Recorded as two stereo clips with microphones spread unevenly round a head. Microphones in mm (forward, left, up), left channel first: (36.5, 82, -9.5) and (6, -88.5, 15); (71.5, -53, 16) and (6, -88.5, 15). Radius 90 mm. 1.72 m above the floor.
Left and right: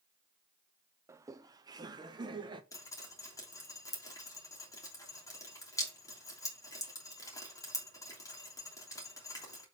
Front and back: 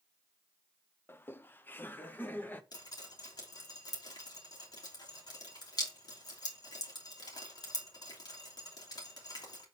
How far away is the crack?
I don't hear a crack.